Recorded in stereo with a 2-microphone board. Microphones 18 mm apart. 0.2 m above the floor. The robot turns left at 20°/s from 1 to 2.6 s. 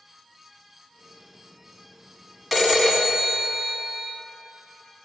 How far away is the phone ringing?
About 0.7 m.